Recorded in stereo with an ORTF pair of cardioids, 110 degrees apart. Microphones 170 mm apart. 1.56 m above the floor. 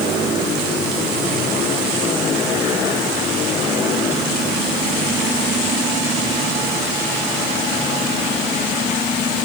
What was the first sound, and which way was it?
Only background noise.